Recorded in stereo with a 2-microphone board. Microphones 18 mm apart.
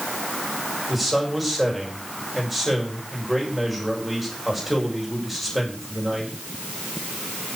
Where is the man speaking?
5° right (ahead or behind), 7.5 m.